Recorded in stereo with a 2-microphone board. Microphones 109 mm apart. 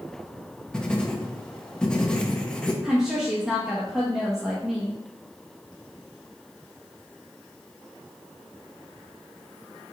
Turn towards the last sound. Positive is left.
turn(degrees=-5)  # may be behind; listen again after turning